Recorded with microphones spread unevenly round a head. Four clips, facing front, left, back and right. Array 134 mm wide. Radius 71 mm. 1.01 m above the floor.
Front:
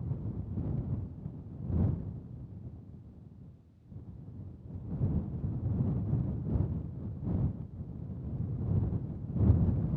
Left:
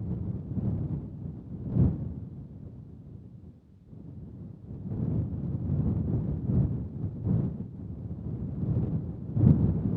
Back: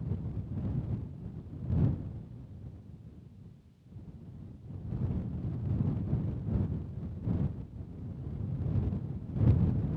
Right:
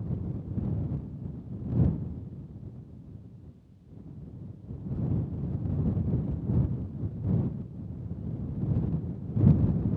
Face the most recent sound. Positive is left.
No sound to turn to.